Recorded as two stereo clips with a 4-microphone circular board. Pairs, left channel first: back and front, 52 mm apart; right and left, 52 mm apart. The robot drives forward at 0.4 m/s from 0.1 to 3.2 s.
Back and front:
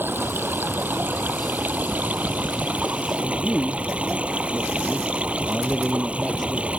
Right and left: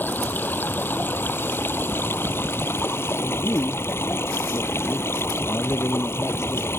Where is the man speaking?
100° right.